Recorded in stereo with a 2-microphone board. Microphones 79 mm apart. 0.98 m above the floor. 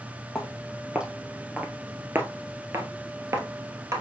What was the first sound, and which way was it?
Footsteps, centre (ahead or behind).